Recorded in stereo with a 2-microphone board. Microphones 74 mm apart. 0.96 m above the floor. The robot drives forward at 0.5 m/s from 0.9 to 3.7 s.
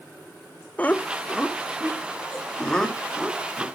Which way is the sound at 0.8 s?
20° left (ahead or behind).